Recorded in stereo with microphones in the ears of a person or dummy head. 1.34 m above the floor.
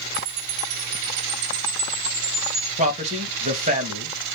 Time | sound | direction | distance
0.1 | a chime | 60° right (ahead or behind) | 1.4 m
2.8 | a man speaking | 40° right (ahead or behind) | 1.5 m